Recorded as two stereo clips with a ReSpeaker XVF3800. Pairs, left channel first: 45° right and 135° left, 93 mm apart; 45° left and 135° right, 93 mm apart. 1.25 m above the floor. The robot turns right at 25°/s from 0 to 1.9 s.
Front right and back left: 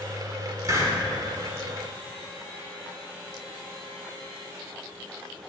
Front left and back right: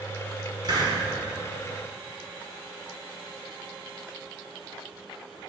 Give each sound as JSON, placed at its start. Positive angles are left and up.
{"t": 0.6, "sound": "a hiss", "azimuth_deg": -175, "distance_m": 2.5}